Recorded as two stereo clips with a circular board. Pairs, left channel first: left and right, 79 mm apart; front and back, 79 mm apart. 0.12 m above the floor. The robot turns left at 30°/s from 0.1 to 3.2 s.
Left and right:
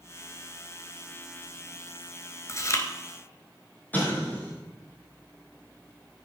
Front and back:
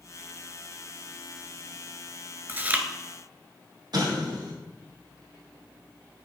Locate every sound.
2.5 s chewing: 125° left, 1.0 m; by 2.9 s 115° left, 1.0 m
3.9 s an explosion: 155° left, 3.5 m